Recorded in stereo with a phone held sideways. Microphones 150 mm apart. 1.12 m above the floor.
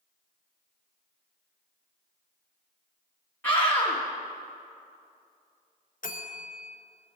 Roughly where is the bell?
Left.